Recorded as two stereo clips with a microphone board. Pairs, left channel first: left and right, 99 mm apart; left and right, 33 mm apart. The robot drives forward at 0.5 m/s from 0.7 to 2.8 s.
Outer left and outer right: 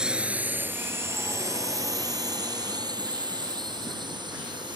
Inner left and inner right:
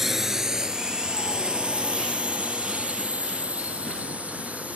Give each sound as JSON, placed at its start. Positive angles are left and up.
{"t": 0.0, "sound": "a drone", "side_deg": -10}